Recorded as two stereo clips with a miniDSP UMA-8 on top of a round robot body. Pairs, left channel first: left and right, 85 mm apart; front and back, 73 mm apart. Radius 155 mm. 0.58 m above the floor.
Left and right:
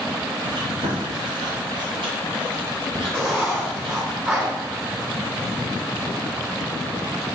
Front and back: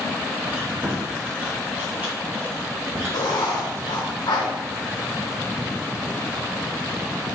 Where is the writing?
10° right, 2.5 m.